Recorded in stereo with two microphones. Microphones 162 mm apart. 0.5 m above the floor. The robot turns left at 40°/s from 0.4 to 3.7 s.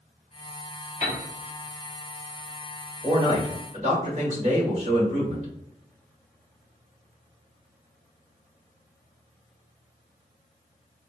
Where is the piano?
50° left (ahead or behind), 1.1 m.